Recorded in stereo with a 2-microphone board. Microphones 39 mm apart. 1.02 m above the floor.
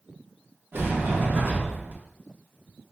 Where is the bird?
No bird in this recording.